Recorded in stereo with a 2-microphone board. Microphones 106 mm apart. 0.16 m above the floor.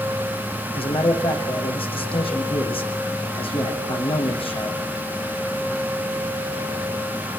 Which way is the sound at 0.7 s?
60° left (ahead or behind).